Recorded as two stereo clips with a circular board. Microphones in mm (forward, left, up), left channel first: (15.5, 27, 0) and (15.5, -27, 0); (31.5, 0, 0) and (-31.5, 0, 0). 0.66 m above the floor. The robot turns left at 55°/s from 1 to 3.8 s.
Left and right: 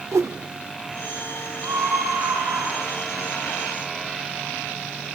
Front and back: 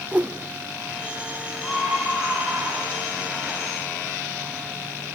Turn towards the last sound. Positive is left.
turn(degrees=165)